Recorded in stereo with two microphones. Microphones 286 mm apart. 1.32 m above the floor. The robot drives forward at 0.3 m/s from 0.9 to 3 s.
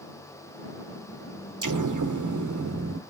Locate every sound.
1.6 s an explosion: 80° right, 0.6 m; by 3.0 s 55° right (ahead or behind), 0.7 m